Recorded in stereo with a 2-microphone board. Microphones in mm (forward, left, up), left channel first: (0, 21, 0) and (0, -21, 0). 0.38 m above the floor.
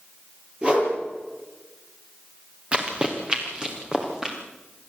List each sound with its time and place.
0.6 s a whoosh: 25° right (ahead or behind), 6.5 m
2.7 s running footsteps: 25° right (ahead or behind), 3.5 m; by 4.3 s 15° right (ahead or behind), 5 m